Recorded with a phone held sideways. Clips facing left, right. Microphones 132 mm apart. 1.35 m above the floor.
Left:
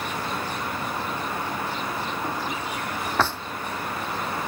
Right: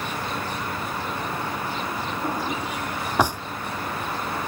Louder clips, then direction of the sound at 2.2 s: Right 2 dB; 15° right (ahead or behind).